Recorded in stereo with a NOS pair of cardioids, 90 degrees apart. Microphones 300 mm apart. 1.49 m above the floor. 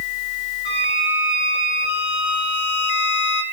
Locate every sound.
0.7 s a violin: 60° left, 4 m